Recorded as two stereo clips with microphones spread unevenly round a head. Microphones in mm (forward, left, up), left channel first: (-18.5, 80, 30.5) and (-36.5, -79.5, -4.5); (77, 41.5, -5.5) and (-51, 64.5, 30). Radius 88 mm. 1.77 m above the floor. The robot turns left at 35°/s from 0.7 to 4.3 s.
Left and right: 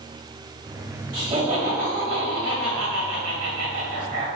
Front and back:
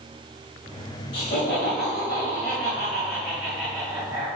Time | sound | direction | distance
1.1 | laughter | 25° right | 1.9 m